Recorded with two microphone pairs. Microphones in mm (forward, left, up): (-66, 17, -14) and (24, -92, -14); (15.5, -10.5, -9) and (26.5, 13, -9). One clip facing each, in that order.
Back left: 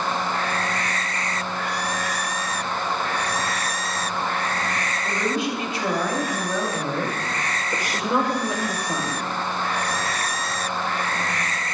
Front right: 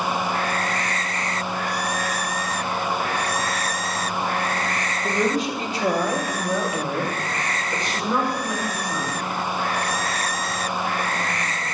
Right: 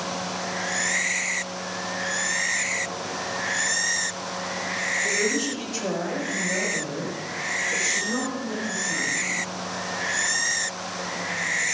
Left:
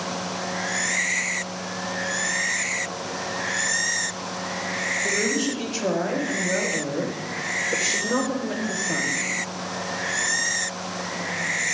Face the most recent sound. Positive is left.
turn(degrees=90)